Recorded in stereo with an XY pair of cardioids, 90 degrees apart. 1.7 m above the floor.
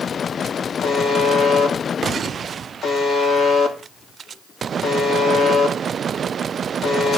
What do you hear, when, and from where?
0.8 s a buzzer: 65° left, 2.5 m